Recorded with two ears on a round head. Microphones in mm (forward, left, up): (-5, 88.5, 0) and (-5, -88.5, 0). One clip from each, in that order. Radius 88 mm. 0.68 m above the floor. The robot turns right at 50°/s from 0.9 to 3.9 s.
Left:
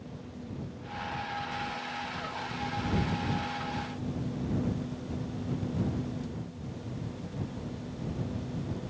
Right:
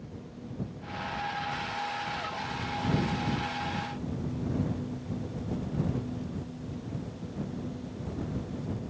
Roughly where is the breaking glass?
I don't hear breaking glass.